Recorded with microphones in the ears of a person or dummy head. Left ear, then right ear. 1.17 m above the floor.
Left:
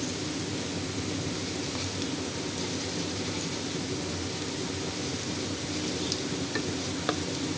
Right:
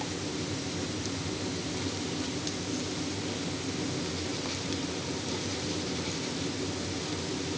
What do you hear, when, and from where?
Only background noise.